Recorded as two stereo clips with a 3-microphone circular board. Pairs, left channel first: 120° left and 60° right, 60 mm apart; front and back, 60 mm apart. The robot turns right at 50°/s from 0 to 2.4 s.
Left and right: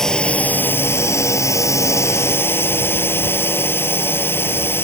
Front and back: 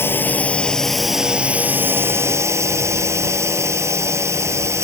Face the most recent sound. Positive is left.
turn(degrees=160)